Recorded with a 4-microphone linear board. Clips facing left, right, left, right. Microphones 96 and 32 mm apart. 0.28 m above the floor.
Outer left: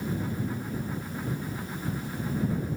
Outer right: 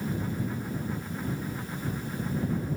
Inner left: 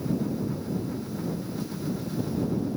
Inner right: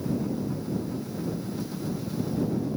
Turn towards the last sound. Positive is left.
No sound to turn to.